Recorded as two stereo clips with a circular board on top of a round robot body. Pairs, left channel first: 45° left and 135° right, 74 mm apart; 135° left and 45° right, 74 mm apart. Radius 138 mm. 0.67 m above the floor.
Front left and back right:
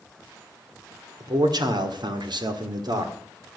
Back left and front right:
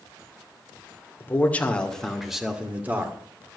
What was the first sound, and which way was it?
A man speaking, 160° right.